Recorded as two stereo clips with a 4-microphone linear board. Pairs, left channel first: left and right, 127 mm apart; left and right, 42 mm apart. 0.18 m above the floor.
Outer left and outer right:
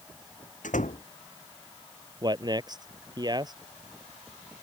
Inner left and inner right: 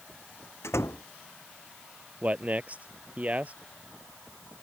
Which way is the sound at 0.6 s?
85° left.